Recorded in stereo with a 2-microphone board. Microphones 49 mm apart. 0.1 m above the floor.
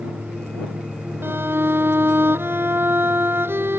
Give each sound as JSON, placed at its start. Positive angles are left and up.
{"t": 1.2, "sound": "a violin", "side_deg": -55}